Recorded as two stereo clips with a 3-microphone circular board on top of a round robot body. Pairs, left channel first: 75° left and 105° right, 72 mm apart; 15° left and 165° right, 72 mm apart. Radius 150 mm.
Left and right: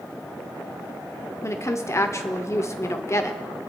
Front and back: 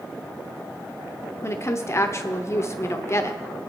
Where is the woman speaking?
45° left, 1.1 m.